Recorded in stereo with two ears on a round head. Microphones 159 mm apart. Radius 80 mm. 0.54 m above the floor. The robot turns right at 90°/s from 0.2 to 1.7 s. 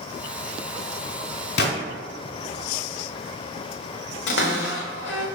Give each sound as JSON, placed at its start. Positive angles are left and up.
{"t": 1.6, "sound": "a gunshot", "side_deg": 70, "distance_m": 1.3}
{"t": 4.3, "sound": "a cupboard door", "side_deg": 75, "distance_m": 0.9}